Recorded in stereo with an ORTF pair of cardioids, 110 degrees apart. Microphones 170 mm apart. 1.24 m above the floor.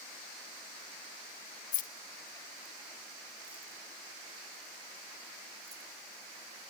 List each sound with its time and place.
1.7 s keys jangling: 55° left, 0.6 m; by 5.9 s 20° right, 2.5 m